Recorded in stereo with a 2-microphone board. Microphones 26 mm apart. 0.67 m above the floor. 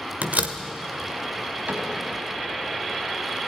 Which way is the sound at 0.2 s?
80° right.